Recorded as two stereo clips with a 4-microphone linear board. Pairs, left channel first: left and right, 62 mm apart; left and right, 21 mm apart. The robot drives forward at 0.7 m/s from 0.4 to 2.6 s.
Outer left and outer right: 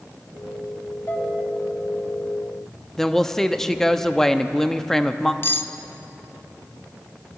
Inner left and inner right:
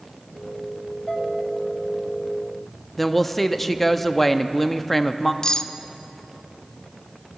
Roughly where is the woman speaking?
Centre.